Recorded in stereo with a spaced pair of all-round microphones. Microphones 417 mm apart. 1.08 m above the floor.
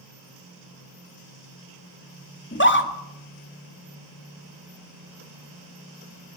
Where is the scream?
25° left (ahead or behind), 2.5 m.